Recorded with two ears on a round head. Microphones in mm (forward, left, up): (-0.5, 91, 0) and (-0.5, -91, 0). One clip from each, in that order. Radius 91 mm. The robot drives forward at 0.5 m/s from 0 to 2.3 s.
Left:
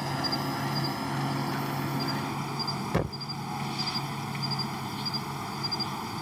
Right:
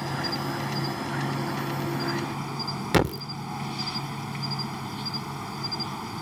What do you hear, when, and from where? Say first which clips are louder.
0.0 s an insect: even; 5° left (ahead or behind)
2.9 s a thud: right 11 dB; 80° right